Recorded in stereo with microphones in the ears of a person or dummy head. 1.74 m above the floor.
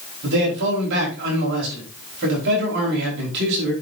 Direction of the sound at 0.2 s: 65° right (ahead or behind).